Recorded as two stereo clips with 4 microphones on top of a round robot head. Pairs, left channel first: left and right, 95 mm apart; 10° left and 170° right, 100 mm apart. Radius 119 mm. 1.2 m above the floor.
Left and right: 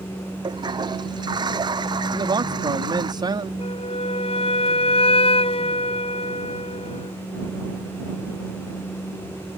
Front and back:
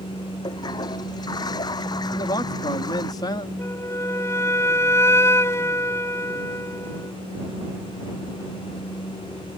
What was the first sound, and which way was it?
A toilet flushing, 45° right.